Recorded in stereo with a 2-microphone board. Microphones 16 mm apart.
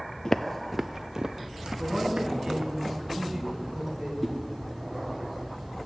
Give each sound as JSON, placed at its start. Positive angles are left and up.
{"t": 0.2, "sound": "footsteps", "side_deg": 35, "distance_m": 0.6}
{"t": 1.8, "sound": "a man speaking", "side_deg": -15, "distance_m": 4.0}
{"t": 4.2, "sound": "a whoosh", "side_deg": 25, "distance_m": 1.3}